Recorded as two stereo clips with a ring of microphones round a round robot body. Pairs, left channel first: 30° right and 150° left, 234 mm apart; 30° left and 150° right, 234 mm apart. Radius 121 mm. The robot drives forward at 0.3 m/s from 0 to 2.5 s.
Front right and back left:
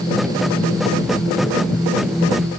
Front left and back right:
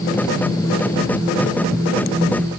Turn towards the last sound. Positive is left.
No sound to turn to.